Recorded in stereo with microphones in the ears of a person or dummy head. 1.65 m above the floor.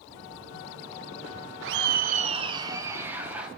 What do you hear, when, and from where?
1.6 s laughter: 65° right (ahead or behind), 0.6 m; by 3.5 s 10° right (ahead or behind), 1.4 m